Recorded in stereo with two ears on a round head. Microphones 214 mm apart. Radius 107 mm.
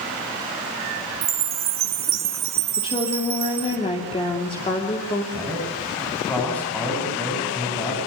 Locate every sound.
1.2 s a chime: 40° right (ahead or behind), 2 m
2.8 s a woman speaking: 25° left (ahead or behind), 2.5 m
5.3 s a man speaking: 5° left (ahead or behind), 8.5 m